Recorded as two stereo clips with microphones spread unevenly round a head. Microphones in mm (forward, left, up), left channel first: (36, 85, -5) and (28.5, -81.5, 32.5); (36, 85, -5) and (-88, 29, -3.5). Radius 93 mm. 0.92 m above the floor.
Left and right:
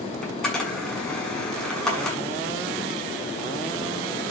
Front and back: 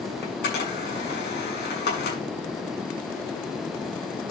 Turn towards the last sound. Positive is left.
turn(degrees=0)